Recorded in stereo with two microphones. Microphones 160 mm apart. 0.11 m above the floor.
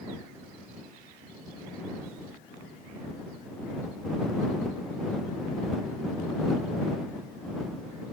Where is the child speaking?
No child speaking in this recording.